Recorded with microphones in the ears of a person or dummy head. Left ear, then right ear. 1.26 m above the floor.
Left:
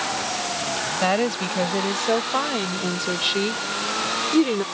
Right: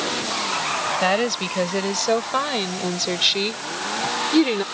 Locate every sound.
1.0 s a woman speaking: 20° right (ahead or behind); by 4.7 s 25° right (ahead or behind)